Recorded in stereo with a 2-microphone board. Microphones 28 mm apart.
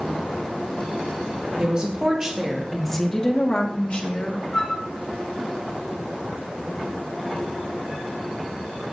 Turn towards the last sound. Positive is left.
turn(degrees=40)  # may be behind; listen again after turning